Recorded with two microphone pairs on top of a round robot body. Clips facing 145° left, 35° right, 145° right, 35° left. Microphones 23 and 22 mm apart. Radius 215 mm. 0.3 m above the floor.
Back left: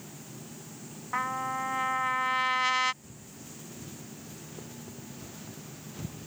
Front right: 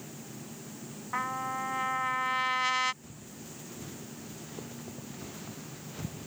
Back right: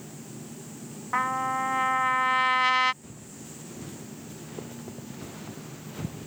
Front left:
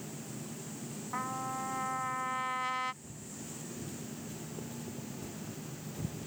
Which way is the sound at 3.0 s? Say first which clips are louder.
Front right 1 dB, back right 2 dB; 110° right.